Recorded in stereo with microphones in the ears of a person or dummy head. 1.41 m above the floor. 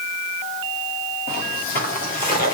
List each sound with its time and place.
1.3 s footsteps: 45° left (ahead or behind), 4.5 m; by 2.5 s 40° left (ahead or behind), 5.5 m